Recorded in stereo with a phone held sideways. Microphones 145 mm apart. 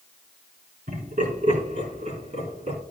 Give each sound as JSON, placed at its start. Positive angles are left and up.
{"t": 0.9, "sound": "laughter", "side_deg": -70, "distance_m": 5.0}